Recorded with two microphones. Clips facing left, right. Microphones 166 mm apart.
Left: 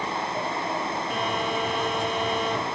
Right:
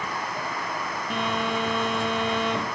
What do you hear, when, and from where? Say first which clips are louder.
1.1 s a phone buzzing: right 3 dB; 5° right (ahead or behind), 1.8 m